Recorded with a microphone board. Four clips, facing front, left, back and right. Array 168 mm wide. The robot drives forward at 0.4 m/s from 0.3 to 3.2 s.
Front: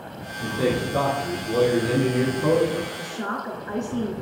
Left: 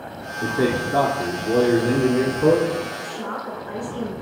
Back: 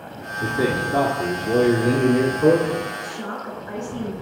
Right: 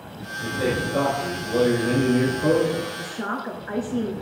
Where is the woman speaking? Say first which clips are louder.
Even, front 1 dB; 60° right, 1.5 m; by 4.1 s 65° right, 1.4 m.